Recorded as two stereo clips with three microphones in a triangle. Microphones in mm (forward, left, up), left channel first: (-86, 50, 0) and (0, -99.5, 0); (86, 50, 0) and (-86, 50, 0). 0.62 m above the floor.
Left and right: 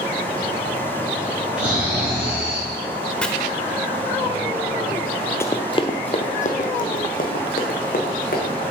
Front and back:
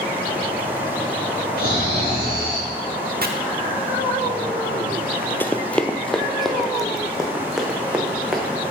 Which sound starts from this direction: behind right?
Chopping, at 3.2 s.